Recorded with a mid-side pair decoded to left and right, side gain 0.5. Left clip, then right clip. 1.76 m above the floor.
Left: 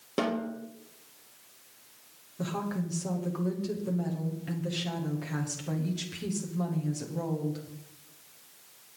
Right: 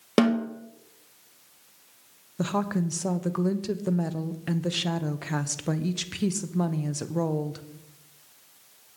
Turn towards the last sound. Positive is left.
turn(degrees=-55)